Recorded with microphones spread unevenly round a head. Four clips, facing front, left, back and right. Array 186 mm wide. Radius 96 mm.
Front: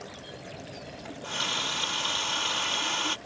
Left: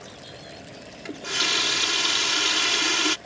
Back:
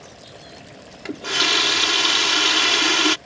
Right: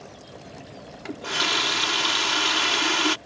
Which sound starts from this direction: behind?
A running tap, at 1.1 s.